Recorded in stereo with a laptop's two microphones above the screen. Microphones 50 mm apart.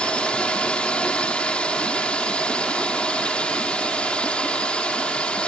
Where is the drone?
20° left (ahead or behind).